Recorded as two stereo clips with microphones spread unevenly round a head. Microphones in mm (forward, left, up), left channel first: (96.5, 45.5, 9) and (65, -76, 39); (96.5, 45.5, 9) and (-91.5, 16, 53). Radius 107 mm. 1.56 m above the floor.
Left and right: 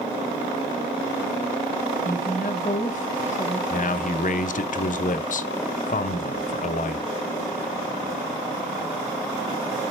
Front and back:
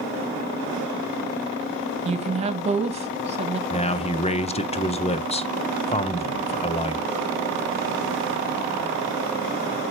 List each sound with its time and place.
2.0 s a woman speaking: 135° left, 1.4 m
3.7 s a man speaking: 65° left, 0.9 m